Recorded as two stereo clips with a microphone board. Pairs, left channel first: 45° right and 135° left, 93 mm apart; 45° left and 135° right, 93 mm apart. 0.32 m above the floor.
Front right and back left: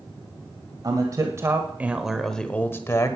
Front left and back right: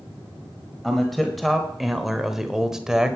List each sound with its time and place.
0.8 s a man speaking: 130° left, 1.4 m; by 3.2 s 55° right, 1.2 m